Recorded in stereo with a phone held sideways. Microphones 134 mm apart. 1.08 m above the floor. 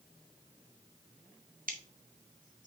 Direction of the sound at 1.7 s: 85° right.